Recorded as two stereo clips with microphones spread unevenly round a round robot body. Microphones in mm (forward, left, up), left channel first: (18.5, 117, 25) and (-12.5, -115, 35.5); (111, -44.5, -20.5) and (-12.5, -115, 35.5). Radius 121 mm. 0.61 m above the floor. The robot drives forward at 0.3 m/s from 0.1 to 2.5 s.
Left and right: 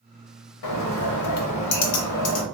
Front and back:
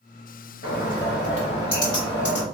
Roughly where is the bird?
Left.